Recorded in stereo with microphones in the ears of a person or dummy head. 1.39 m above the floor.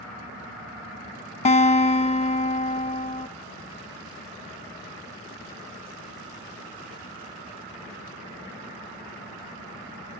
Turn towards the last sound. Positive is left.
turn(degrees=35)  # may be behind; listen again after turning